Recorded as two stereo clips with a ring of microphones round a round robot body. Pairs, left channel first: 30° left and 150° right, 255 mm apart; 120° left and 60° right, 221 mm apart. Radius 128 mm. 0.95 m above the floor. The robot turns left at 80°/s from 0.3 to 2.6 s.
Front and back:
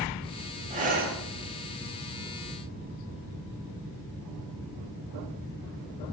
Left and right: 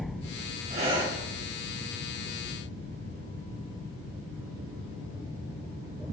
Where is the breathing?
100° right, 0.9 m; by 1.2 s 135° right, 0.9 m.